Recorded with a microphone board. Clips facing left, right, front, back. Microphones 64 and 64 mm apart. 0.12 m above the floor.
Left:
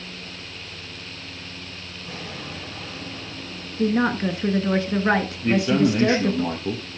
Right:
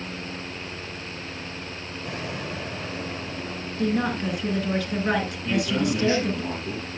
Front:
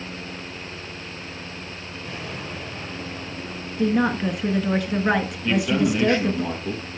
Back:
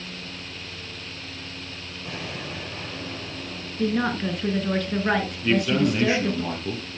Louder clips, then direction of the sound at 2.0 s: Right 3 dB, even; 110° right.